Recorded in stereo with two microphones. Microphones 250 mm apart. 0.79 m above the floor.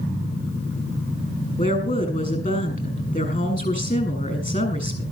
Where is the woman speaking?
30° left (ahead or behind), 7 m.